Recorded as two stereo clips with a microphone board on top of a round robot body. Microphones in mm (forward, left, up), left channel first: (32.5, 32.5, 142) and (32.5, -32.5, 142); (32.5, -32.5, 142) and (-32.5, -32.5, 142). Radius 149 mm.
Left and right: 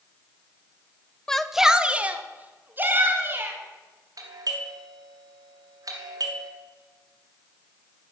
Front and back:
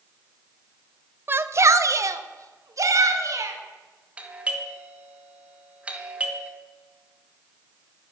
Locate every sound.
1.3 s a shout: 160° left, 0.9 m; by 3.6 s 145° right, 3 m
4.2 s a doorbell: 110° right, 2 m